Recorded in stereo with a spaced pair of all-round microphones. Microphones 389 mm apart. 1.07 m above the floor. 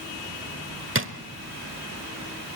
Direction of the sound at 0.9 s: 30° right (ahead or behind).